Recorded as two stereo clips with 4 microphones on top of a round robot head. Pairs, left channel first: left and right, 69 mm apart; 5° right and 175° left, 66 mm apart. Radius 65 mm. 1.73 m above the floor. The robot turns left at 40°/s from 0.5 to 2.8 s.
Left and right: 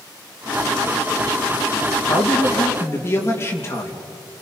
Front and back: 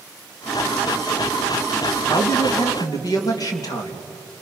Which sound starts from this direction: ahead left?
A man speaking, at 2.1 s.